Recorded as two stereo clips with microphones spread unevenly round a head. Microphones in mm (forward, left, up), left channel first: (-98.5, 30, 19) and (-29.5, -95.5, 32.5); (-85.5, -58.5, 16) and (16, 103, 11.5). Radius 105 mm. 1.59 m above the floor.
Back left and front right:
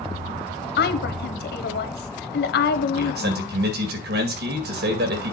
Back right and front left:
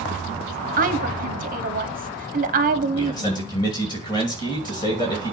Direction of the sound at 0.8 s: 105° left.